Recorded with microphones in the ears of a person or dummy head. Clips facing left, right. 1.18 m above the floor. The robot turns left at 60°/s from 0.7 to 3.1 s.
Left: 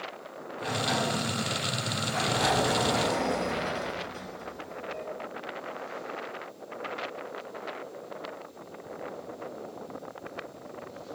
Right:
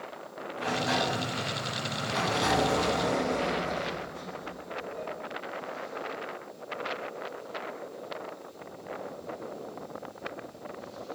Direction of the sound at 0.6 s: 130° right.